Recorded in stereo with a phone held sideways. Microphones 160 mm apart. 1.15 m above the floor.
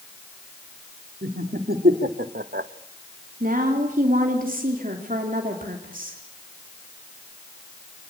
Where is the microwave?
No microwave in this recording.